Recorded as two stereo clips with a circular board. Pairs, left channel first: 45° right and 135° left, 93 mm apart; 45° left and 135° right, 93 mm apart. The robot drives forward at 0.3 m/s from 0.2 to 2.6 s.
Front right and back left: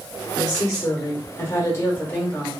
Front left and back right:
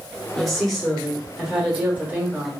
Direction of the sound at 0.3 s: 40° right.